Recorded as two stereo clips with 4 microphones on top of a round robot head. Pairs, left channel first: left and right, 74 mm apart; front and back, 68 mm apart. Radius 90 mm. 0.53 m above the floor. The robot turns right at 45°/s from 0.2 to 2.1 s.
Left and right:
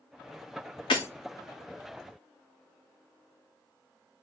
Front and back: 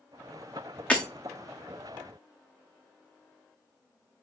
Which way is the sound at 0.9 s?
65° left.